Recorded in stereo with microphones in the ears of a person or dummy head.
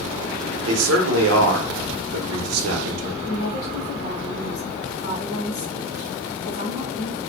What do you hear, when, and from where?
0.7 s a man speaking: 80° right, 0.8 m
3.2 s a woman speaking: 65° left (ahead or behind), 0.9 m